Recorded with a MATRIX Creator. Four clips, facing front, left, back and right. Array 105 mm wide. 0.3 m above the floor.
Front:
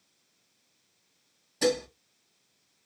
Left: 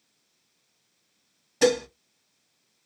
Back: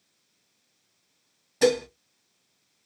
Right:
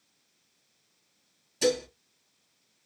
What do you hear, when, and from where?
1.6 s dishes clattering: 115° left, 1.2 m